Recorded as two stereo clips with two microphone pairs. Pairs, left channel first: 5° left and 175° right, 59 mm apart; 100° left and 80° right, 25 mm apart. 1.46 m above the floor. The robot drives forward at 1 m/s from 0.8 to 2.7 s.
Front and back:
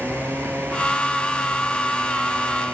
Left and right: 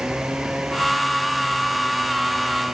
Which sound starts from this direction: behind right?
A motorcycle, at 0.0 s.